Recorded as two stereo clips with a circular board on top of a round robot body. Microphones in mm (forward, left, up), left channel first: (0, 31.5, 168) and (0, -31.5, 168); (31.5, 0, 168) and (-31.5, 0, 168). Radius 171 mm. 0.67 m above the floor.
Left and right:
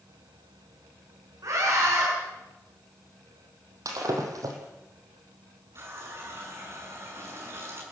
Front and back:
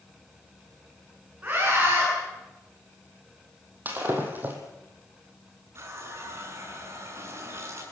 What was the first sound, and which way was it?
A scream, 110° right.